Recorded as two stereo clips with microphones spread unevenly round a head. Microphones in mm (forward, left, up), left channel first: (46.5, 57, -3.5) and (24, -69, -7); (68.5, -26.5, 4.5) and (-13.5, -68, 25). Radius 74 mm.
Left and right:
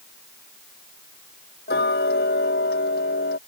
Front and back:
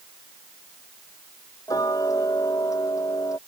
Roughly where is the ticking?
Left.